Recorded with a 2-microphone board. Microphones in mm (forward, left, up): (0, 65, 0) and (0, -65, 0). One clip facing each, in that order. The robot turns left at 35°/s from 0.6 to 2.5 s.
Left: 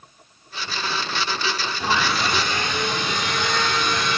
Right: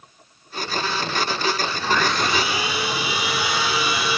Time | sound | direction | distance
1.8 | sawing | 15° left (ahead or behind) | 2.5 m